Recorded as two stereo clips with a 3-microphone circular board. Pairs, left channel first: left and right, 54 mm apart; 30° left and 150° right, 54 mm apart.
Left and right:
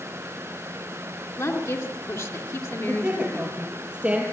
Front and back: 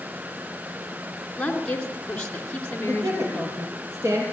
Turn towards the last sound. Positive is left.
turn(degrees=-160)